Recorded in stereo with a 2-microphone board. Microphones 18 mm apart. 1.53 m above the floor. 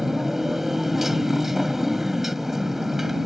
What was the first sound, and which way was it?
A motorcycle, 15° right (ahead or behind).